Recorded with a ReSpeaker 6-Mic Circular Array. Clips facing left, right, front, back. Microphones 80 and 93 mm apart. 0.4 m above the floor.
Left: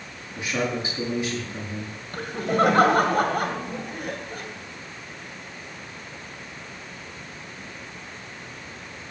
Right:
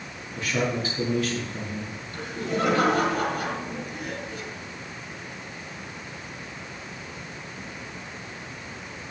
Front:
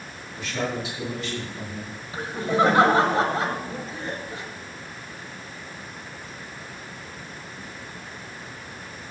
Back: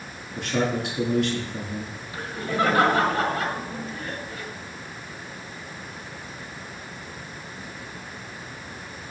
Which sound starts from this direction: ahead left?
Laughter, at 2.1 s.